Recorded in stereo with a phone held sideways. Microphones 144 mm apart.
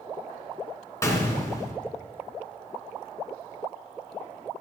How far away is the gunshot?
About 2.5 m.